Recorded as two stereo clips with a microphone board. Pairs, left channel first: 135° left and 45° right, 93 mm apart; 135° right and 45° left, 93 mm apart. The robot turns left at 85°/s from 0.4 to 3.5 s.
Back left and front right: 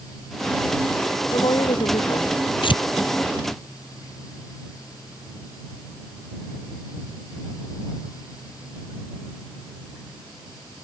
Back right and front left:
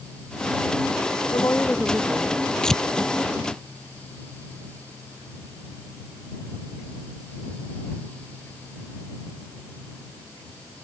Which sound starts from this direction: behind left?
Tearing paper, at 2.6 s.